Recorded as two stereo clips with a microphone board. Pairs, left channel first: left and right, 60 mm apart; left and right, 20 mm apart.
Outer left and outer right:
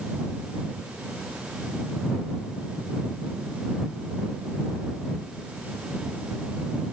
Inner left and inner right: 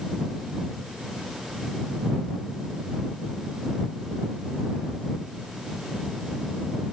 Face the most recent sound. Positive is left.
No sound to turn to.